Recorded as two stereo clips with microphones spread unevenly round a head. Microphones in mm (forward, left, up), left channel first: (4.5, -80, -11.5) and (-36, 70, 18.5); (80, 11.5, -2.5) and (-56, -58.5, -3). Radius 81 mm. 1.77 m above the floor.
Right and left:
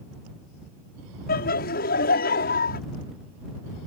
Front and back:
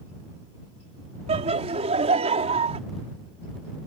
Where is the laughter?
105° right.